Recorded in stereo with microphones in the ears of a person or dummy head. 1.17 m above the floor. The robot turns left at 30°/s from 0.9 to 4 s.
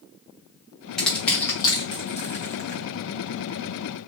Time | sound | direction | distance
1.0 | crushing | centre (ahead or behind) | 0.9 m